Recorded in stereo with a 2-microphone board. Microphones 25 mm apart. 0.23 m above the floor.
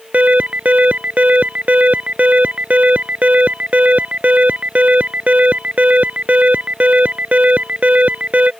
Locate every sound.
0.1 s an alarm: 65° right (ahead or behind)